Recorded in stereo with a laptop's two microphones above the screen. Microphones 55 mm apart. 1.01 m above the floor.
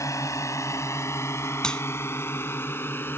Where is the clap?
15° left (ahead or behind).